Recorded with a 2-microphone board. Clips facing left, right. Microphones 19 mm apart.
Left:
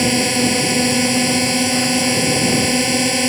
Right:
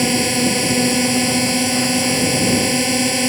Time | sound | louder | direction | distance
0.0 | a drone | left 1 dB | 10° left (ahead or behind) | ?